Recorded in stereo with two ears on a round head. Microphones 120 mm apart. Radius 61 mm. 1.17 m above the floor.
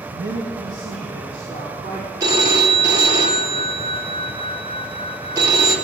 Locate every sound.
0.1 s a man speaking: 85° right, 1.2 m; by 2.1 s 55° right (ahead or behind), 3.5 m
2.2 s a phone ringing: 25° right (ahead or behind), 1.0 m